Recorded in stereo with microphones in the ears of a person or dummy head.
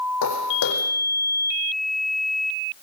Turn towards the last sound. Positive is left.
turn(degrees=70)  # may be behind; listen again after turning